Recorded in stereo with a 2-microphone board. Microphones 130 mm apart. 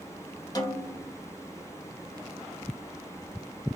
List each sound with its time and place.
0.6 s a snare drum: 35° left (ahead or behind), 0.6 m